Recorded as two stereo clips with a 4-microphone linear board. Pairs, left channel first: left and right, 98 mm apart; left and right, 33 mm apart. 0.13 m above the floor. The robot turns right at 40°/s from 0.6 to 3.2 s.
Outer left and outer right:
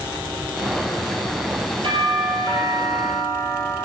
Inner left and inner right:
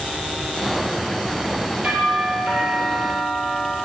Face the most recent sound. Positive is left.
turn(degrees=-25)